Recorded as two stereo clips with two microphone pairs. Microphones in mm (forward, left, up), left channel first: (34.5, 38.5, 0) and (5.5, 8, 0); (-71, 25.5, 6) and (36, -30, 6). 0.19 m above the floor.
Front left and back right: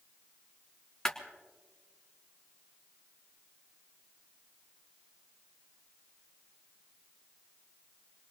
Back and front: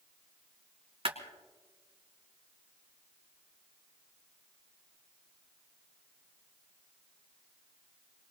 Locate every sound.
1.1 s a clap: 20° right, 2 m